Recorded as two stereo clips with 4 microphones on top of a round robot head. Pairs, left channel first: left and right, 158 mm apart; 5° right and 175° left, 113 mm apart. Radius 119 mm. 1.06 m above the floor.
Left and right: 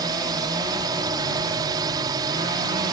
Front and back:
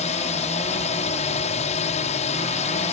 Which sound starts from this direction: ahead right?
A drone, at 0.0 s.